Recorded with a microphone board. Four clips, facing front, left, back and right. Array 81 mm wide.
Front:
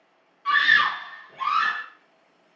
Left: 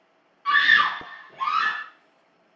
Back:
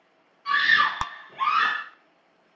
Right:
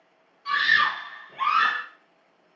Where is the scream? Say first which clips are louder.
Left 3 dB, front 1 dB; 60° left, 1.0 m; by 1.8 s 130° right, 1.3 m.